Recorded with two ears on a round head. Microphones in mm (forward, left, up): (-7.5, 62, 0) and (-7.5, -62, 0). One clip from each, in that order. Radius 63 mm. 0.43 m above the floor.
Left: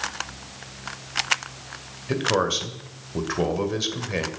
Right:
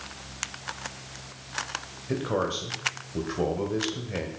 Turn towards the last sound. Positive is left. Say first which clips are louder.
# left 6 dB
turn(degrees=45)  # may be behind; listen again after turning